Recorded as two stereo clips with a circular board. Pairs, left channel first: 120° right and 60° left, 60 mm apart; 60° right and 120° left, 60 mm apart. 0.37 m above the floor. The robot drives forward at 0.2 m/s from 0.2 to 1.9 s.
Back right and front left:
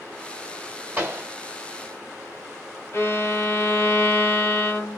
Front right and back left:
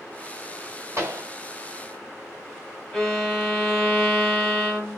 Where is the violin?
150° right, 1.9 m.